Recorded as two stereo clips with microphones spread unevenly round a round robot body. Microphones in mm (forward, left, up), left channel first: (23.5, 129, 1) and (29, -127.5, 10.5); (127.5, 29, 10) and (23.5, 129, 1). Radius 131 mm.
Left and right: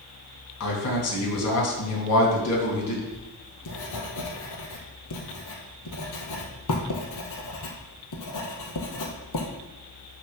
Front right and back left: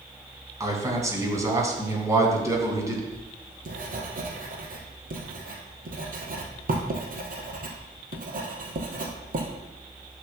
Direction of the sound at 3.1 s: 115° left.